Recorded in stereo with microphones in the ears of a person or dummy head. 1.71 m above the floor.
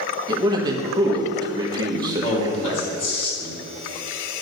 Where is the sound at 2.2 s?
35° left (ahead or behind), 3 m.